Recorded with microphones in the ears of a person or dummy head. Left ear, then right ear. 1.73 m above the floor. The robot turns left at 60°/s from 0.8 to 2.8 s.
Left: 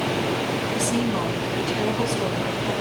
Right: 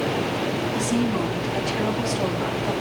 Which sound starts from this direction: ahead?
A woman speaking, at 0.7 s.